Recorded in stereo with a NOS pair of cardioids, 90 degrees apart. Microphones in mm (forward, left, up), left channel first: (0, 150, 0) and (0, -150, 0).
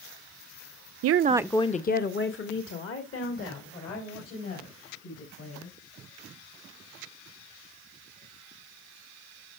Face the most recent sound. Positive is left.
turn(degrees=55)